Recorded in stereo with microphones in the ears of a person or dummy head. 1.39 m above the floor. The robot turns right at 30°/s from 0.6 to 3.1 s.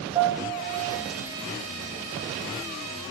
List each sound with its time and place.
0.1 s a piano: 20° right (ahead or behind), 2.5 m; by 1.1 s 35° right (ahead or behind), 2.5 m